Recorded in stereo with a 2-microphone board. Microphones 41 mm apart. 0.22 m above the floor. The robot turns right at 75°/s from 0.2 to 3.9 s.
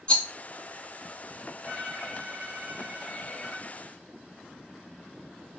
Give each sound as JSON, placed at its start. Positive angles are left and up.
{"t": 0.1, "sound": "a rattle", "side_deg": 30, "distance_m": 0.5}
{"t": 1.6, "sound": "a violin", "azimuth_deg": -165, "distance_m": 1.1}